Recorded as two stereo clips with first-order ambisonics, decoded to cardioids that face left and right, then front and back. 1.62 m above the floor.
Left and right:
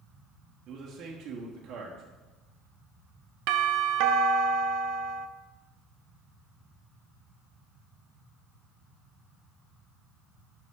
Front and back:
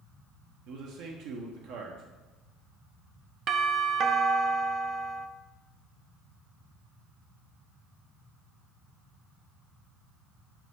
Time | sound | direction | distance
0.7 | a man speaking | 145° right | 1.0 m
3.5 | a doorbell | 115° right | 0.5 m